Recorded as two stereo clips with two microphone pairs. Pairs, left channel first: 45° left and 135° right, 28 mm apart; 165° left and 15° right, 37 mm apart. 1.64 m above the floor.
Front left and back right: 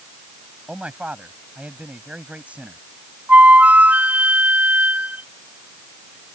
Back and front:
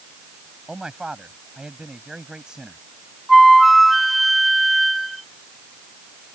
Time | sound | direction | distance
0.7 | a man speaking | 90° right | ?
3.3 | a flute | 110° right | ?